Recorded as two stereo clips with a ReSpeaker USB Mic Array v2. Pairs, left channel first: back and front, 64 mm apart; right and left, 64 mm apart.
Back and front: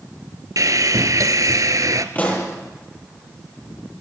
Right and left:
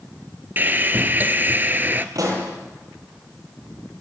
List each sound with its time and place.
0.6 s sawing: 30° left, 1.7 m
2.1 s a pop: 115° left, 9.5 m